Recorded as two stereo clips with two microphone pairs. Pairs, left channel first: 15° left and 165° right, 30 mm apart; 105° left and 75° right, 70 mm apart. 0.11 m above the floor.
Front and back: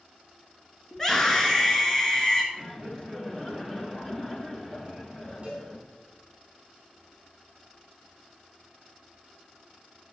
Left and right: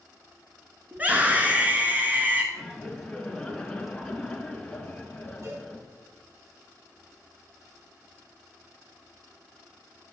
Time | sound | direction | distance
0.9 | a scream | 40° right | 1.4 m
2.5 | laughter | 40° left | 1.7 m
5.4 | a cowbell | 110° right | 4.5 m